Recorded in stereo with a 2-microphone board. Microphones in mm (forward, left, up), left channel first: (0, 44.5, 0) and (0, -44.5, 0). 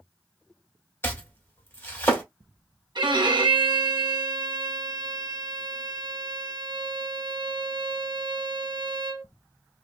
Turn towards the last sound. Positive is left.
turn(degrees=-60)  # may be behind; listen again after turning